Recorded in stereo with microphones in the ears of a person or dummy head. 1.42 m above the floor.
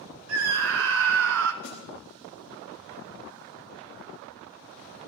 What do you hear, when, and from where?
0.3 s a scream: 70° right (ahead or behind), 0.8 m
1.6 s a snare drum: 60° left (ahead or behind), 3.5 m